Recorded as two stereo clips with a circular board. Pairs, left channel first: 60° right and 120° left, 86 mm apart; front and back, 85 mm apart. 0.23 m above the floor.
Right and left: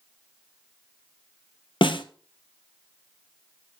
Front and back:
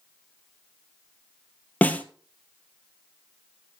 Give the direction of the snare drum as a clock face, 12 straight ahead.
2 o'clock.